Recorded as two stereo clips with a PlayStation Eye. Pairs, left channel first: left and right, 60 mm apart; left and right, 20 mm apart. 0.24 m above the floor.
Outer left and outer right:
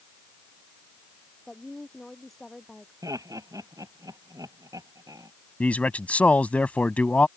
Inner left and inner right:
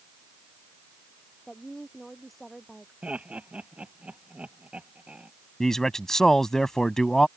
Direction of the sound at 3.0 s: 85° right.